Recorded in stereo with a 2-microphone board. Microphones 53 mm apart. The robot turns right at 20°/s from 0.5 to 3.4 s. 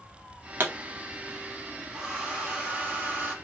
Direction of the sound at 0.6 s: 40° right (ahead or behind).